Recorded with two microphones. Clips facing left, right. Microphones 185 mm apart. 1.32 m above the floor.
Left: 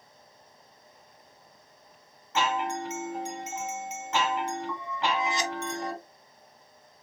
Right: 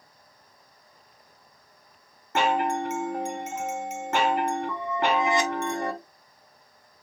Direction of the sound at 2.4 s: 55° right (ahead or behind).